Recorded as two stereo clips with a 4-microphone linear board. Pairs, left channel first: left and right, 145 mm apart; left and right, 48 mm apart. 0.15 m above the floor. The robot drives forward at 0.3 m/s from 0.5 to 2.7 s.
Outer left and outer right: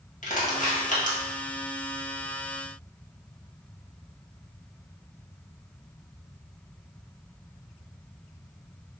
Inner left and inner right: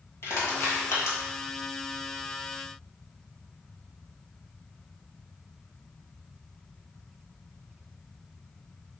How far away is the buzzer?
No buzzer in this recording.